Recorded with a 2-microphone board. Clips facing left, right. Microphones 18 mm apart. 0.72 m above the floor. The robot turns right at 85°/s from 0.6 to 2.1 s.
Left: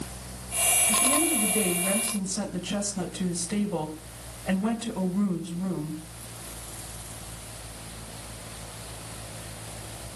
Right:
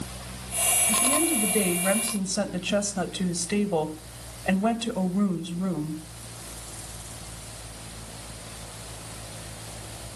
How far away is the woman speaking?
About 3.5 m.